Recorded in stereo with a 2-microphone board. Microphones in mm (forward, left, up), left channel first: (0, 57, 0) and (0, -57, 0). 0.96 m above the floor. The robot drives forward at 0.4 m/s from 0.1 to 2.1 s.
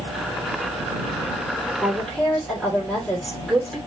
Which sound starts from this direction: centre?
A woman speaking, at 1.8 s.